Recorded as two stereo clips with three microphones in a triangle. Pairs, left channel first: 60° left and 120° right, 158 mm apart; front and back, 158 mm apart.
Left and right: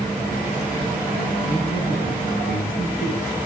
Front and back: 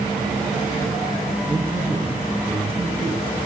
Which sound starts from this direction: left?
A man speaking, at 1.5 s.